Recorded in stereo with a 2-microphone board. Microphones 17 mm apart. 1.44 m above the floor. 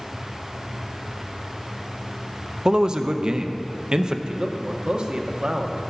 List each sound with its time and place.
2.6 s a man speaking: 45° right (ahead or behind), 0.5 m
4.3 s a man speaking: 60° right (ahead or behind), 0.8 m